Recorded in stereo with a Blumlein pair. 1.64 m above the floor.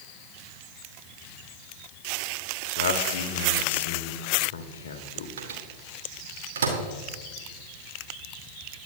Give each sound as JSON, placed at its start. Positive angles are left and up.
{"t": 2.8, "sound": "a man speaking", "azimuth_deg": 55, "distance_m": 1.4}
{"t": 5.4, "sound": "a microwave", "azimuth_deg": -65, "distance_m": 2.5}